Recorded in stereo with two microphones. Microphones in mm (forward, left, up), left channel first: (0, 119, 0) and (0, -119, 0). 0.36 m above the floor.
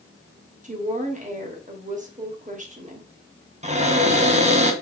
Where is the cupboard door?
30° right (ahead or behind), 0.8 m.